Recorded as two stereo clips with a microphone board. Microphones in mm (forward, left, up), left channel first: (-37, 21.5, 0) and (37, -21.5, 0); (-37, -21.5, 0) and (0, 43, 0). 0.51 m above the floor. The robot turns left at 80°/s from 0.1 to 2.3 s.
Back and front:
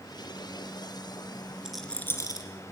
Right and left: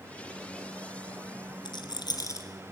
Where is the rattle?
110° right, 2.5 m; by 2.5 s 165° right, 2.5 m.